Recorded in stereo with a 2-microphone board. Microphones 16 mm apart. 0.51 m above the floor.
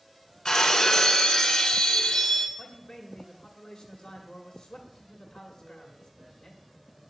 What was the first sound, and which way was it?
Breaking glass, 55° left (ahead or behind).